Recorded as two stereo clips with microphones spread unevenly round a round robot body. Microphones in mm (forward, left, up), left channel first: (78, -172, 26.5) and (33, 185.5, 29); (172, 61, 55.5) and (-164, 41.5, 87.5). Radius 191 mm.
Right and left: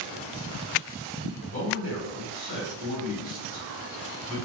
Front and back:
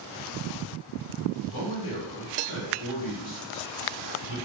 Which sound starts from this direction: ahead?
A man speaking, at 1.4 s.